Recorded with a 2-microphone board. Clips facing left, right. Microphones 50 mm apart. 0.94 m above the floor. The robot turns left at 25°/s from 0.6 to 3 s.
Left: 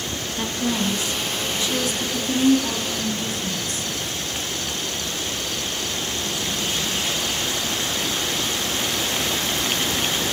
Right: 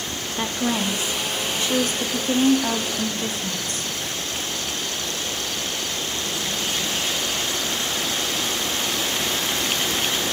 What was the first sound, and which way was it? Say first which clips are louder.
A woman speaking: right 1 dB; 30° right.